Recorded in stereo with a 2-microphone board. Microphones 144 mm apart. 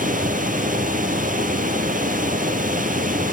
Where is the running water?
70° right (ahead or behind), 1.2 m.